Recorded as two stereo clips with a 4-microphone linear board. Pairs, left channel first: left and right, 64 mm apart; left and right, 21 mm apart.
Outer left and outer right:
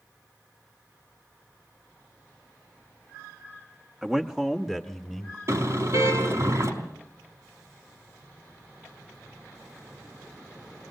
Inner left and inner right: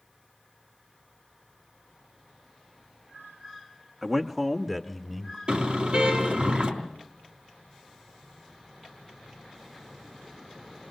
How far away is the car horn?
About 3.5 m.